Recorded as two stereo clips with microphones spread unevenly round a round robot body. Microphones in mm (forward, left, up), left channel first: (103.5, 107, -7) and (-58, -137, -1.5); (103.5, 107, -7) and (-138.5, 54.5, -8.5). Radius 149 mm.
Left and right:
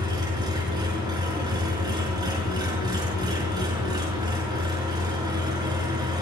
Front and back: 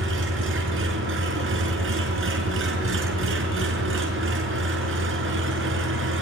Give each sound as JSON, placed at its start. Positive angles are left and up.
{"t": 0.0, "sound": "an engine running", "azimuth_deg": 160, "distance_m": 5.0}